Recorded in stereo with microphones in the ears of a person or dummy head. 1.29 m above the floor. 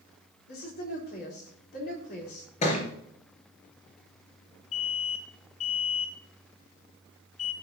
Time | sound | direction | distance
0.5 | a woman speaking | 50° left (ahead or behind) | 4 m
2.6 | a thud | 40° left (ahead or behind) | 3 m
4.7 | an alarm | 40° left (ahead or behind) | 3.5 m